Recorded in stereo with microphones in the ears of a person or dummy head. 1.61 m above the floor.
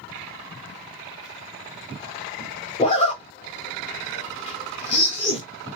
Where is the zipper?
30° left (ahead or behind), 0.8 m.